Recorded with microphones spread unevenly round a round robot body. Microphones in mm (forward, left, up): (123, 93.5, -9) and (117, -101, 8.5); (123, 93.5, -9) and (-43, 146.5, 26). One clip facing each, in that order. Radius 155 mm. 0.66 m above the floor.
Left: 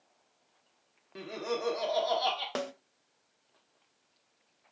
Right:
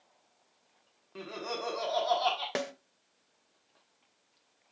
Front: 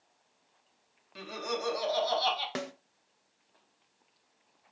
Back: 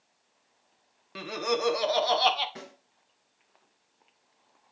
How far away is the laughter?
About 1.2 m.